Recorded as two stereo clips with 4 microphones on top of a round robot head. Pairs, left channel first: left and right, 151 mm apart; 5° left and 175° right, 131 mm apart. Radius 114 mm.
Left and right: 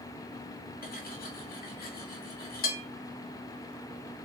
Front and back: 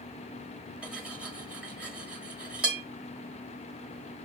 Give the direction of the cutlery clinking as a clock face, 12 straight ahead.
9 o'clock.